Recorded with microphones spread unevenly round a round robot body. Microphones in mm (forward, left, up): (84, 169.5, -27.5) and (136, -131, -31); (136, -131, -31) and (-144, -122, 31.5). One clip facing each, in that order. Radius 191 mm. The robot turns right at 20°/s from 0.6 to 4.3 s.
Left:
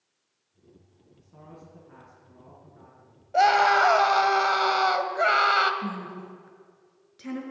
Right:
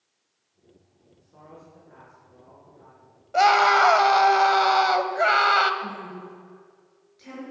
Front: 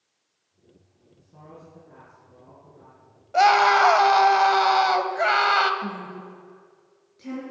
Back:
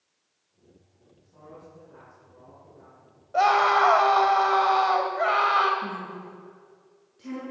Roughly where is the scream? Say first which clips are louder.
Right 1 dB, front 3 dB; ahead.